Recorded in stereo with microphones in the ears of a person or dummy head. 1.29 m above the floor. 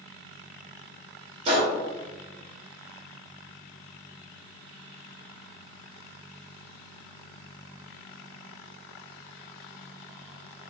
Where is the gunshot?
40° right (ahead or behind), 1.1 m.